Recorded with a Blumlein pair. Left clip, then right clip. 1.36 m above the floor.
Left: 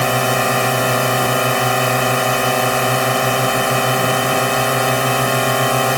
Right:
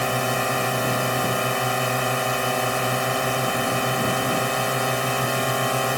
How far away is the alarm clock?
No alarm clock in this recording.